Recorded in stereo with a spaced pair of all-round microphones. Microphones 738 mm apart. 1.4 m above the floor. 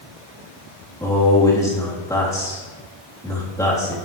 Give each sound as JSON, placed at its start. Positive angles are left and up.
{"t": 1.0, "sound": "a man speaking", "side_deg": 5, "distance_m": 3.0}